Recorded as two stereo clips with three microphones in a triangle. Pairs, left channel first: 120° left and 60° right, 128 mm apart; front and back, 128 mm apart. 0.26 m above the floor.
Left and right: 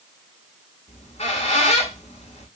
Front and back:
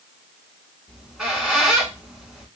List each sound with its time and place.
0.9 s a squeak: 95° left, 0.9 m